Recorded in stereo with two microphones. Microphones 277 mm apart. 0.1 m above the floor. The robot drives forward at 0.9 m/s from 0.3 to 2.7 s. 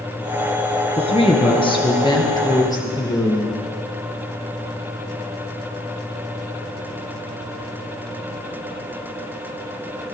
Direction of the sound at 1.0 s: 20° left (ahead or behind).